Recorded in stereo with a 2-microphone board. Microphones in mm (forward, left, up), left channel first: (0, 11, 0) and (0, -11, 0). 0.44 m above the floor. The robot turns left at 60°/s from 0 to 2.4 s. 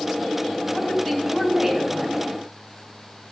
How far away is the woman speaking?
About 4 m.